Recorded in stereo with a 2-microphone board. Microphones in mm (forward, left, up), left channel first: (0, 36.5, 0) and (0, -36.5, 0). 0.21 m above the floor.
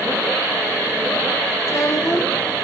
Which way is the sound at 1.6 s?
40° left (ahead or behind).